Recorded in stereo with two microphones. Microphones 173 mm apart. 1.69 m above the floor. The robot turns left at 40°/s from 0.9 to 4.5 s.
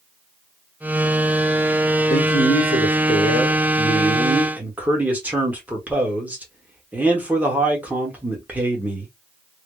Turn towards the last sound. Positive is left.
turn(degrees=-10)